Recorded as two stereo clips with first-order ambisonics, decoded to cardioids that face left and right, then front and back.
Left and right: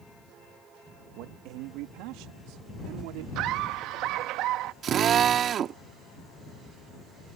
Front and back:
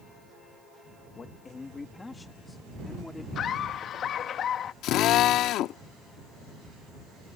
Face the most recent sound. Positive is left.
turn(degrees=-35)